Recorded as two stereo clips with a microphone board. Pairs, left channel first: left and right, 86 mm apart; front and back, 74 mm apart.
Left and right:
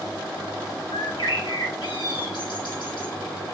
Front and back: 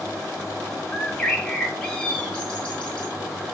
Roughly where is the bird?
Left.